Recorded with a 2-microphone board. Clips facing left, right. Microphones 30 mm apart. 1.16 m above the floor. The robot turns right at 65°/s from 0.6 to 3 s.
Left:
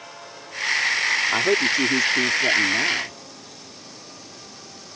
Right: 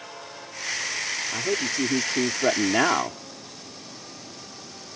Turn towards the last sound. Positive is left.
turn(degrees=-120)